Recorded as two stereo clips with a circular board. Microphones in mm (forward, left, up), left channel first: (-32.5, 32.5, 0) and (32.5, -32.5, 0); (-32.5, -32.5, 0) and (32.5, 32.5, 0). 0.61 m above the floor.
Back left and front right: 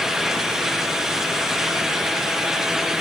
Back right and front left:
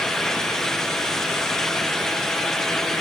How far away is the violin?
I don't hear a violin.